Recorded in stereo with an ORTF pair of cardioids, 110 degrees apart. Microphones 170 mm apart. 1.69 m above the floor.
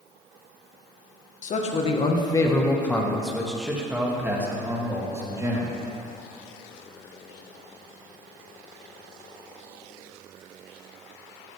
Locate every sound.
1.4 s a man speaking: 50° left, 1.5 m; by 5.8 s 20° right, 3.5 m